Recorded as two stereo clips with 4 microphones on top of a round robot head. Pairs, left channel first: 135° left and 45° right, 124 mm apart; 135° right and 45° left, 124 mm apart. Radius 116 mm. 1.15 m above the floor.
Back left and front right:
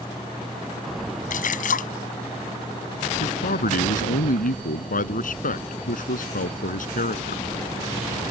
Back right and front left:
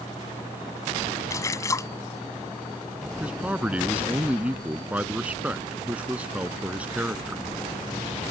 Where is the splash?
155° left.